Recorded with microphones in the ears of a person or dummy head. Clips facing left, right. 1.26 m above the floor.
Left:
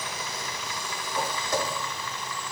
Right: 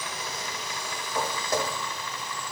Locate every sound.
1.1 s footsteps: 35° right (ahead or behind), 3 m